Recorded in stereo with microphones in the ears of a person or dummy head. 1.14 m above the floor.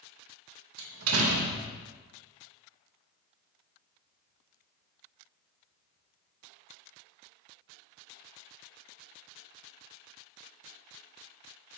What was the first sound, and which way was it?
A door slam, 75° right (ahead or behind).